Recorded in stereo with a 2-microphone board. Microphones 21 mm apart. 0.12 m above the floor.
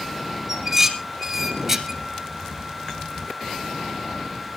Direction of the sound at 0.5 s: 20° right (ahead or behind).